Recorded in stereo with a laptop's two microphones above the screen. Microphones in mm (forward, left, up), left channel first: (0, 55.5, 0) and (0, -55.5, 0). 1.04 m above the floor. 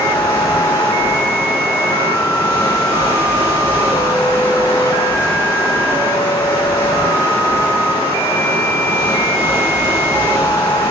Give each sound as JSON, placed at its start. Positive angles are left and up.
{"t": 0.0, "sound": "running water", "side_deg": 40, "distance_m": 3.5}